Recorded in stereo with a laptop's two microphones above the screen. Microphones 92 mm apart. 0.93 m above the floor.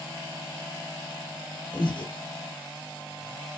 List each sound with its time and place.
1.7 s breathing: 60° left (ahead or behind), 4 m